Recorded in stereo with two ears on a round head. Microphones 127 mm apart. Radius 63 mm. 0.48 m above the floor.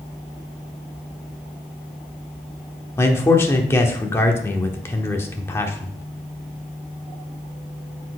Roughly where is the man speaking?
Centre.